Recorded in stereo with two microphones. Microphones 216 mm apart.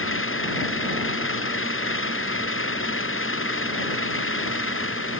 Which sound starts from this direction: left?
An engine running, at 0.0 s.